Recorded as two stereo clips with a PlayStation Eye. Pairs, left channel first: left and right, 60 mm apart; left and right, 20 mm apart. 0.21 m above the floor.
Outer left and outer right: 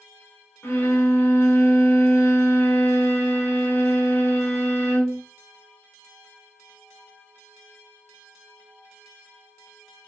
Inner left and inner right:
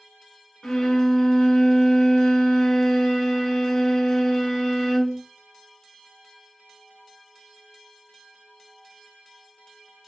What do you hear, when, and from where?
0.6 s a violin: 50° left (ahead or behind), 1.1 m